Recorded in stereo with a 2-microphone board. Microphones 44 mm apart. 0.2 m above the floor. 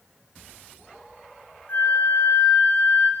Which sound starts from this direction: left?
A flute, at 1.7 s.